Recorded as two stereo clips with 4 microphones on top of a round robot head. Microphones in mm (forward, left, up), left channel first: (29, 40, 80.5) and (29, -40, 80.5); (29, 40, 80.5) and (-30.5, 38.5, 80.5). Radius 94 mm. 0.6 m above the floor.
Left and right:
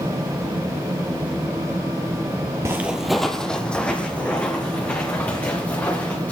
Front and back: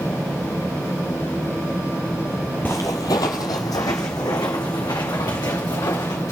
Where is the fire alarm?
No fire alarm in this recording.